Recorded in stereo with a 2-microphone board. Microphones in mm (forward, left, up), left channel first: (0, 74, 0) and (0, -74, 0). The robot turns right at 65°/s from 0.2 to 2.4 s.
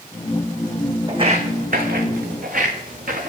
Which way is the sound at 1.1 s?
30° right (ahead or behind).